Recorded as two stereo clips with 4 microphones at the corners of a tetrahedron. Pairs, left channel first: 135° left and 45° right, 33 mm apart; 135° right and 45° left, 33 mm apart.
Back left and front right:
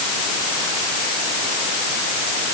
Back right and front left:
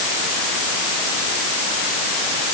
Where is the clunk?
I don't hear a clunk.